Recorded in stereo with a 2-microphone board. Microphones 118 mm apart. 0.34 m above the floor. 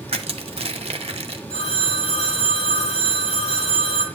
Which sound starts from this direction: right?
Crushing, at 0.1 s.